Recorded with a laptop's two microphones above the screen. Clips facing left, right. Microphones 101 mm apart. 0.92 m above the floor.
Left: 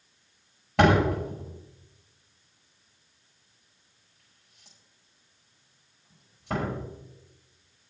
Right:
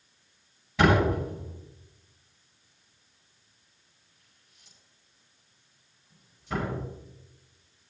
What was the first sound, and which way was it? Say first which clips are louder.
A door slam: left 1 dB; 75° left (ahead or behind).